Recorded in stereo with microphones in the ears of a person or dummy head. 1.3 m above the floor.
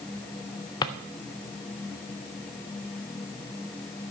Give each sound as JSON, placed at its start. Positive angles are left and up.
{"t": 0.8, "sound": "a drawer", "side_deg": 20, "distance_m": 0.5}